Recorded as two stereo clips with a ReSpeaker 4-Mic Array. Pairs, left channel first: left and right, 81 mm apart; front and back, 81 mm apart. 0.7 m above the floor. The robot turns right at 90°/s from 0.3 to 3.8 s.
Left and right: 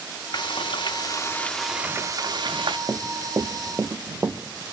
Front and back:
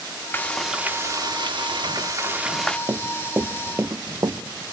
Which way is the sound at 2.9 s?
135° right.